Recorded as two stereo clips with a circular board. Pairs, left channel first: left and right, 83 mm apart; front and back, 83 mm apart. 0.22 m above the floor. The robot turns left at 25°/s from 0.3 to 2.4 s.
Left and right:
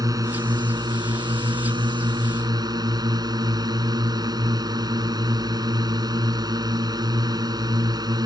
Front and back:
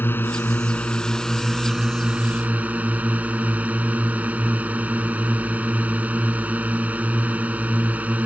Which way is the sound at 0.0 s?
60° right.